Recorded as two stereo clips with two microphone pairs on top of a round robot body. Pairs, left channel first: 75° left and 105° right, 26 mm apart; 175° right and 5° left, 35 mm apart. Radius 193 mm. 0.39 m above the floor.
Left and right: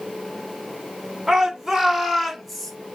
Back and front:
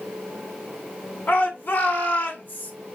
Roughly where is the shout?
Behind.